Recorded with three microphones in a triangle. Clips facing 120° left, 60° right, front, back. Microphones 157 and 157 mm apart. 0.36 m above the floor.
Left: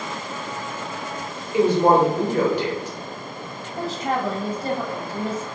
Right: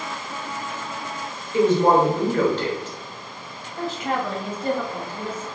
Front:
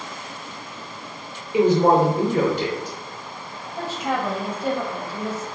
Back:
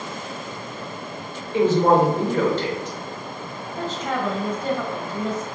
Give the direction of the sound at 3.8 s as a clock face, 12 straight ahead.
9 o'clock.